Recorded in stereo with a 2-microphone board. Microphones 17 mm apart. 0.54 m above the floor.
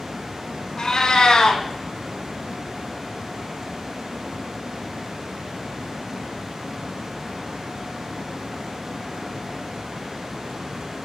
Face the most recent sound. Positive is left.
turn(degrees=60)  # may be behind; listen again after turning